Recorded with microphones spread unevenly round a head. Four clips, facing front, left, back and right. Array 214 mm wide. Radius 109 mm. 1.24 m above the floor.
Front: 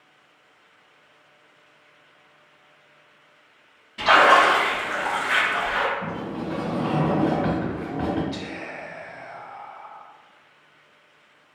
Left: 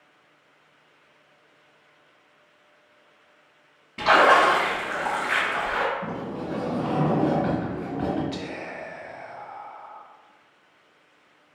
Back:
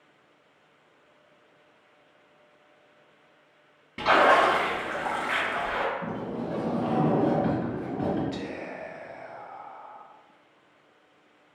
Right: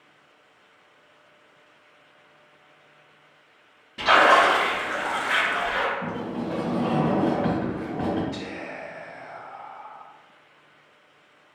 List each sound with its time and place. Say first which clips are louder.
4.0 s a splash: even, front 4 dB; 170° left, 0.9 m
6.0 s a sliding door: right 2 dB, front 2 dB; 25° right, 1.4 m
8.3 s whispering: left 1 dB, front 1 dB; 115° left, 0.6 m